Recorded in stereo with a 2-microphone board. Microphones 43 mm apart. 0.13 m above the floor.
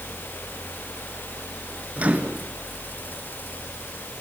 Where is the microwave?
30° right (ahead or behind), 1.9 m.